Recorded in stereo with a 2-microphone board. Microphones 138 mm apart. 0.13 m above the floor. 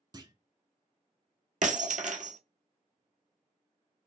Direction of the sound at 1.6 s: 70° right (ahead or behind).